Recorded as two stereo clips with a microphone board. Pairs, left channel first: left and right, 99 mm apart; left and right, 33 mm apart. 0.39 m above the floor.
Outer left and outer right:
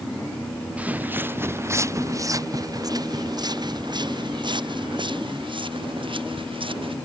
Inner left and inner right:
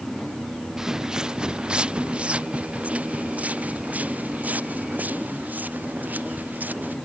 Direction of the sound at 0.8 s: 15° right (ahead or behind).